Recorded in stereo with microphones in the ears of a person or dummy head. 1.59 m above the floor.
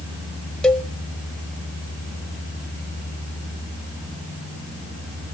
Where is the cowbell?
5° left (ahead or behind), 0.6 m.